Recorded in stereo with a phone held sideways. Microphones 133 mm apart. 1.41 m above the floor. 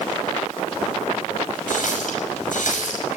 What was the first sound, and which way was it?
A running tap, 80° left.